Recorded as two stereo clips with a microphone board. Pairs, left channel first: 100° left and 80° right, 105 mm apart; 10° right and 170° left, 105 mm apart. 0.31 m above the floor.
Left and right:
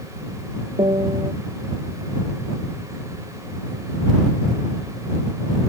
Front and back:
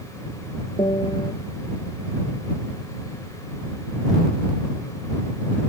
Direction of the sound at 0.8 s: 45° right.